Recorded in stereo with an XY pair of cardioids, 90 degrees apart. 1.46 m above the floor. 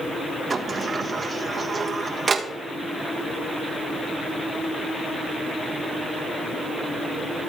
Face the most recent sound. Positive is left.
turn(degrees=-40)